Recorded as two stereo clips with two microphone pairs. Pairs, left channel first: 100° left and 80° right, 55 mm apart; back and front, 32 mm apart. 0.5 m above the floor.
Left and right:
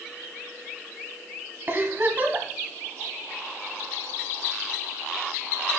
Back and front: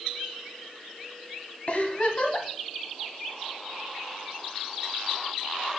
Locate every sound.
1.7 s a giggle: 130° right, 1.1 m